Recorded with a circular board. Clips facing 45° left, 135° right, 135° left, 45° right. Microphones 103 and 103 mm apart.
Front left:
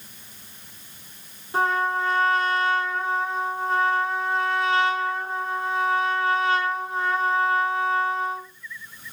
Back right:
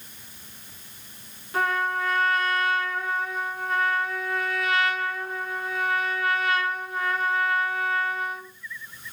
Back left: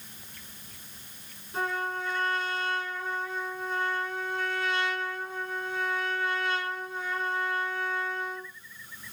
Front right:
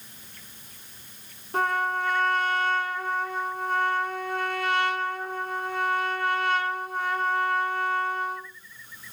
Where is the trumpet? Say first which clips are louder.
Front left 3 dB, front right 6 dB; 15° right, 1.5 m.